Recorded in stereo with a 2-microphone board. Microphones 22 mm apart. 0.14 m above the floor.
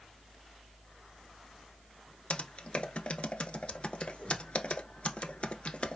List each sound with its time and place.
2.3 s typing on a keyboard: 50° left (ahead or behind), 0.8 m